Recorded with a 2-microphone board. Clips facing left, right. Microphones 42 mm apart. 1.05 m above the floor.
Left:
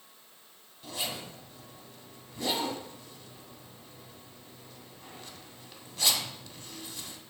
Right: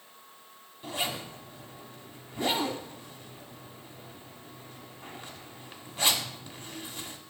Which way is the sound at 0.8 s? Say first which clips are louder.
Right 4 dB; 25° right (ahead or behind).